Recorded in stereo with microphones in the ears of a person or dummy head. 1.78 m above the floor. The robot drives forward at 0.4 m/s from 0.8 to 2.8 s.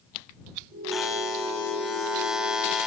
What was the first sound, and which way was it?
A buzzer, centre (ahead or behind).